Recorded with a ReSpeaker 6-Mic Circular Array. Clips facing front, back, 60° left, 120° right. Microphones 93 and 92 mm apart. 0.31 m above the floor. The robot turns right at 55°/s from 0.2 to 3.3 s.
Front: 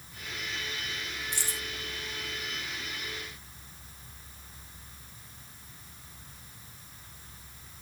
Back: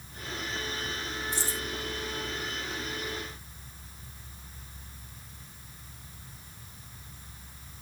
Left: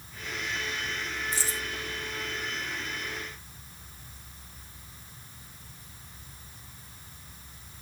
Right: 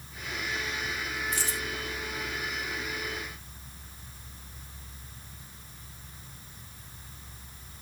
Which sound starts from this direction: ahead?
Keys jangling, at 1.3 s.